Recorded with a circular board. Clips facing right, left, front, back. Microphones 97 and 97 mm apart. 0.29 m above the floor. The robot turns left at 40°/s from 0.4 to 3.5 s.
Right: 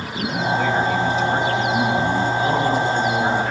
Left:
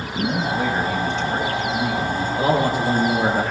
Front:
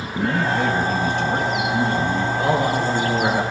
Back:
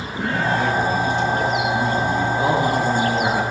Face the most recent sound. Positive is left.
turn(degrees=70)